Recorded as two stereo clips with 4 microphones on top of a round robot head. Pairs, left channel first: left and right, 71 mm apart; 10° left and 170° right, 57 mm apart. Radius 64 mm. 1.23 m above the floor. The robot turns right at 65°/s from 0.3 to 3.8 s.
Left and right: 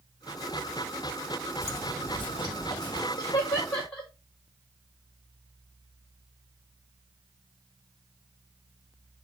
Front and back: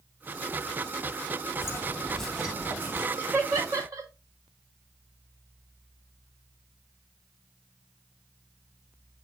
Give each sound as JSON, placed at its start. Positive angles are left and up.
{"t": 1.6, "sound": "footsteps", "azimuth_deg": 40, "distance_m": 3.0}
{"t": 3.2, "sound": "laughter", "azimuth_deg": 130, "distance_m": 3.5}